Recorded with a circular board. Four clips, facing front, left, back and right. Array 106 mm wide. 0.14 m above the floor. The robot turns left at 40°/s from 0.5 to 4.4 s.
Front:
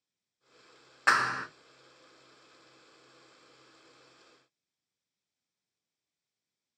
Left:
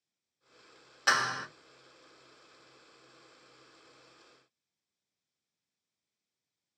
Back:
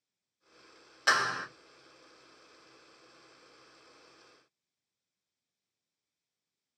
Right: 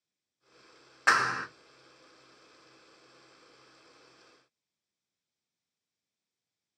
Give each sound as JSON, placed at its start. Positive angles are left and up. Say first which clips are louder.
{"t": 1.1, "sound": "a clap", "louder": "right 3 dB, front 2 dB", "azimuth_deg": -40, "distance_m": 1.0}